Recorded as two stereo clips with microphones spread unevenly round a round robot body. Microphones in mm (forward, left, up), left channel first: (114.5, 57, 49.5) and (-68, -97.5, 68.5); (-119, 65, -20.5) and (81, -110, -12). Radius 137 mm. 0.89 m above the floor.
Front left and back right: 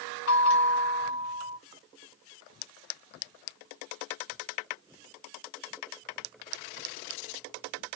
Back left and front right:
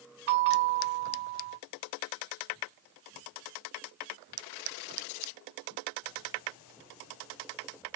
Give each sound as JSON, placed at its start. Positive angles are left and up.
{"t": 0.3, "sound": "a bell", "azimuth_deg": 10, "distance_m": 1.0}